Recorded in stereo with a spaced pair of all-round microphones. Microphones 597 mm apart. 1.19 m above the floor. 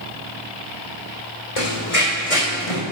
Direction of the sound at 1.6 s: 65° left (ahead or behind).